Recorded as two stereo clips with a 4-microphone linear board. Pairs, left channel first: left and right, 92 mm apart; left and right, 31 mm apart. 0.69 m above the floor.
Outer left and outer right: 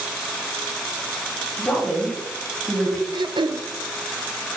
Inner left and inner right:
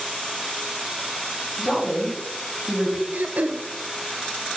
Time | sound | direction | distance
1.6 | a woman speaking | 15° left (ahead or behind) | 3.5 m
3.1 | throat clearing | 60° right (ahead or behind) | 0.5 m